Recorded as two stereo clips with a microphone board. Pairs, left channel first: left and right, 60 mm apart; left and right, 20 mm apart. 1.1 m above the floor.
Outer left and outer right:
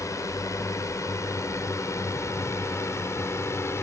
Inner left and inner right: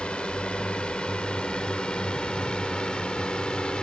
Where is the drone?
60° left (ahead or behind); by 3.9 s 50° left (ahead or behind).